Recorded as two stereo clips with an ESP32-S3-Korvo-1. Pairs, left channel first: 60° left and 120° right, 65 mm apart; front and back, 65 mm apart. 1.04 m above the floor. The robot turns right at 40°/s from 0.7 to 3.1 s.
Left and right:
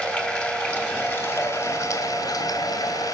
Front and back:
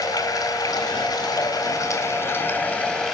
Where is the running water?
10° right, 3 m; by 3.1 s 85° left, 3 m.